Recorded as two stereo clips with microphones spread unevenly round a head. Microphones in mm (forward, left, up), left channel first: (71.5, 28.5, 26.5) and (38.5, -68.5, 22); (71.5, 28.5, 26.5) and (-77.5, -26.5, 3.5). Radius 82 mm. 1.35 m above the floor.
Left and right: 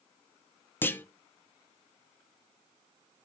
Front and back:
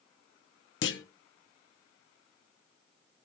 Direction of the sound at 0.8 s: Straight ahead.